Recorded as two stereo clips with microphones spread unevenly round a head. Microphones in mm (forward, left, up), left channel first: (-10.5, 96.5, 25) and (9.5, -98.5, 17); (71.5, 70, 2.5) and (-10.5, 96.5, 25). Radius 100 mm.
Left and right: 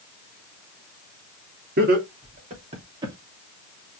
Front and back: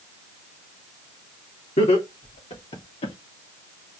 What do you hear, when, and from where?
1.8 s laughter: 40° right, 3.5 m; by 3.1 s 10° right, 2.5 m